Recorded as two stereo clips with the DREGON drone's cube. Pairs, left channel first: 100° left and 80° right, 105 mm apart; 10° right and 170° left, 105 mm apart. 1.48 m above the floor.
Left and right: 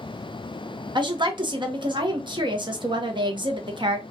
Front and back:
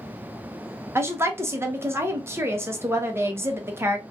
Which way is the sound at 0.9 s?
120° right.